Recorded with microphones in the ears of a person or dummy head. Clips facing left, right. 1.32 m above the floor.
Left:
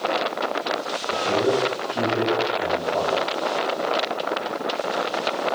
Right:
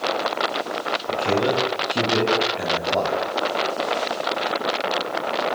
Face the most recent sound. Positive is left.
turn(degrees=-25)  # may be behind; listen again after turning